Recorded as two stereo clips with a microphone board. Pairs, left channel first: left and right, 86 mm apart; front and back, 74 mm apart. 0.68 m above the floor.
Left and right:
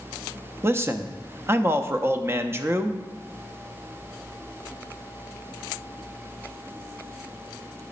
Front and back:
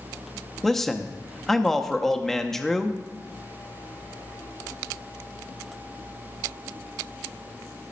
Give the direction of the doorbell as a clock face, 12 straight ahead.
No doorbell in this recording.